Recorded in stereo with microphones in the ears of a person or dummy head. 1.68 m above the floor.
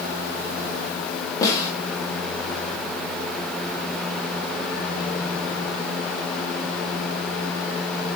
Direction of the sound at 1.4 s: 20° left (ahead or behind).